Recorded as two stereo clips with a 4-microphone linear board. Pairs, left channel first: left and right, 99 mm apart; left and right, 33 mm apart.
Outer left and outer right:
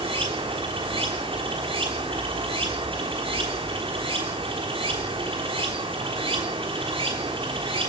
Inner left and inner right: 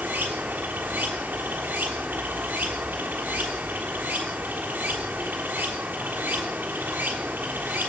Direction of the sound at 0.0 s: 60° right (ahead or behind).